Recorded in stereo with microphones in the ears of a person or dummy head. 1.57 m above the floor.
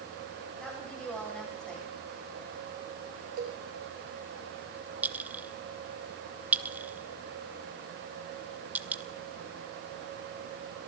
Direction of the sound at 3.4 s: 60° right (ahead or behind).